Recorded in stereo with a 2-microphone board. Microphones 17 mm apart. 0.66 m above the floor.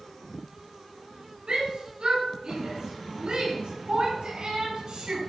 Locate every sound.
1.5 s a shout: 70° right (ahead or behind), 8.5 m; by 5.2 s 65° right (ahead or behind), 6 m